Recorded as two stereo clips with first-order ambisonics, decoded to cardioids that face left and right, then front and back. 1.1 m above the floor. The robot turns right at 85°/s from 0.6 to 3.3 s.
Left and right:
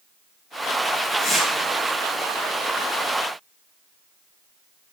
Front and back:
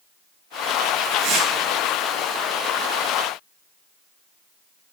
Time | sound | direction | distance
1.2 | tearing paper | 160° left | 8 m